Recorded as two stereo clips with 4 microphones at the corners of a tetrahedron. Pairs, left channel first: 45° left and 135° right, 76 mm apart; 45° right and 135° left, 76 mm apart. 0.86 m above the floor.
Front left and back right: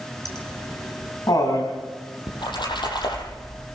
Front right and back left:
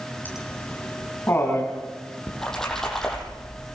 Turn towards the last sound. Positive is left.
turn(degrees=40)